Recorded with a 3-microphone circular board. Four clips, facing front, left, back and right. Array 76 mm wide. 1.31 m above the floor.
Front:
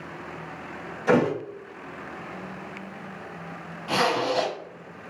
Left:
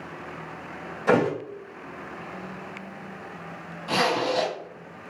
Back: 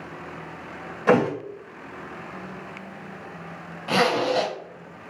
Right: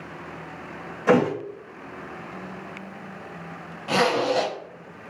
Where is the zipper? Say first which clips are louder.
Right 2 dB, back 2 dB; 160° right, 1.3 m.